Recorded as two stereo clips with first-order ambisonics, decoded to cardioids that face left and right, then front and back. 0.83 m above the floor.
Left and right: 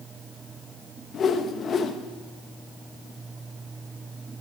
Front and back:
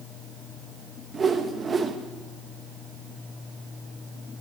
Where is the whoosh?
120° left, 0.8 m.